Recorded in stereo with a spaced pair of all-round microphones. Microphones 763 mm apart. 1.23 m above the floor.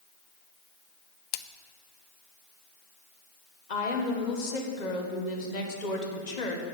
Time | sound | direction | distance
1.3 | a splash | 75° left (ahead or behind) | 0.6 m
3.7 | a woman speaking | 65° left (ahead or behind) | 1.2 m